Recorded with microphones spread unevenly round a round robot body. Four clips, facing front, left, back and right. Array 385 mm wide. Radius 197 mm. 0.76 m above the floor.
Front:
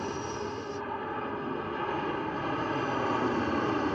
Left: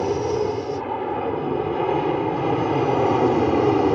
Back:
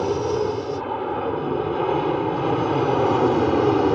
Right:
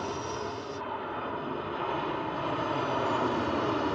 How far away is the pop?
I don't hear a pop.